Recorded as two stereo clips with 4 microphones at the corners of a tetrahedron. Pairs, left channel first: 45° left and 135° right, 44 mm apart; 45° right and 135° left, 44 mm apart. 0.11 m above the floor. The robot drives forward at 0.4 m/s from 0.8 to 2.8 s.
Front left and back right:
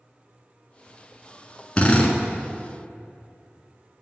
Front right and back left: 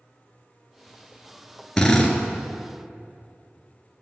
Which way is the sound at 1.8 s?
20° left.